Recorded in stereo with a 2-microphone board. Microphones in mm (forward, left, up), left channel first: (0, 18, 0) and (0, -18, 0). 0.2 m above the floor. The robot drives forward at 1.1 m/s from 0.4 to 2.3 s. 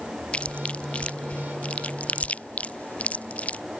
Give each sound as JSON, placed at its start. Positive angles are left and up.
{"t": 0.3, "sound": "chewing", "side_deg": 30}